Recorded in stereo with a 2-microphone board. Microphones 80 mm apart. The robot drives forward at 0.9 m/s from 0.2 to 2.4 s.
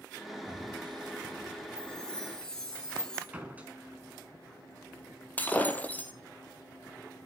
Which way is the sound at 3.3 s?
20° right (ahead or behind).